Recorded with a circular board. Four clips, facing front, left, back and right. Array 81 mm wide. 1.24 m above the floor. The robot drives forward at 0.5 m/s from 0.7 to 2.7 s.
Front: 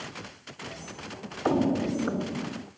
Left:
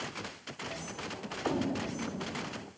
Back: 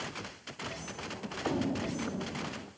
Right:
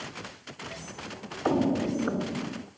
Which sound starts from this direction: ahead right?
Footsteps, at 1.4 s.